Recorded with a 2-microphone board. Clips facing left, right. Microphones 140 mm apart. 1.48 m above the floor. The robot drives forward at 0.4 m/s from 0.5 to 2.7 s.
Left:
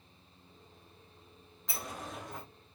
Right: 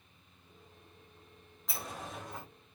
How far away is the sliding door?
About 1.1 m.